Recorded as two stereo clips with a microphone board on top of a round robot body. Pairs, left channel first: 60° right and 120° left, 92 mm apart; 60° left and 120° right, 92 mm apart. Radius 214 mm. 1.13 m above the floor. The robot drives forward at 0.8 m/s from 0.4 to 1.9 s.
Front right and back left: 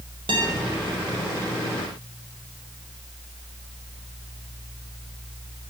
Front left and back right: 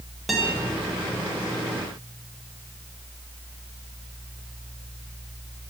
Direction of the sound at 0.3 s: 150° left.